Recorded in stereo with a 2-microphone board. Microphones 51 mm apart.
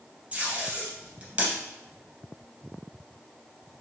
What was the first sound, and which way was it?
Tape being pulled, 25° right (ahead or behind).